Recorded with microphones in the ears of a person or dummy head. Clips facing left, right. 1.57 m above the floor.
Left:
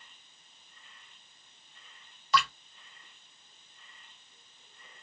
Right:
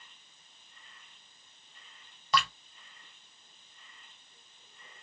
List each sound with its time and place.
2.3 s dripping: 35° right (ahead or behind), 1.7 m